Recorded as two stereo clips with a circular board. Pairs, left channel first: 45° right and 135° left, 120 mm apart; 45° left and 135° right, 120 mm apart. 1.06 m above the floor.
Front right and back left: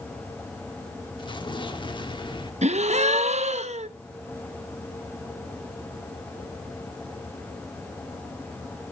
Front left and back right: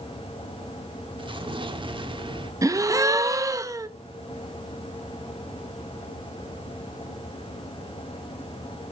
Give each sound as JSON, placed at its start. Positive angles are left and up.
{"t": 1.2, "sound": "an explosion", "azimuth_deg": -90, "distance_m": 1.0}
{"t": 2.6, "sound": "a gasp", "azimuth_deg": 160, "distance_m": 0.7}